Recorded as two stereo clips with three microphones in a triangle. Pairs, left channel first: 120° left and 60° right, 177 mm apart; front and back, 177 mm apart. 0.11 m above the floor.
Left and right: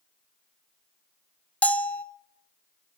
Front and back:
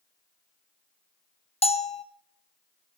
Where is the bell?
40° left, 0.8 m.